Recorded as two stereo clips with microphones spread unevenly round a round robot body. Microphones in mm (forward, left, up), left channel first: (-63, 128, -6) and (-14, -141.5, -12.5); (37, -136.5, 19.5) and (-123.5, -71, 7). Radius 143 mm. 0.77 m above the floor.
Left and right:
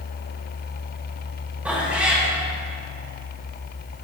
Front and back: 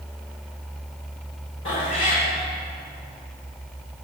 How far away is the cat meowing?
About 1.1 m.